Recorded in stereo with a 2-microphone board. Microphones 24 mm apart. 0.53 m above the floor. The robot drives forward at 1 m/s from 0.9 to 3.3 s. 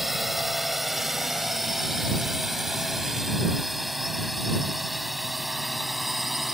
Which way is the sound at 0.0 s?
5° right (ahead or behind).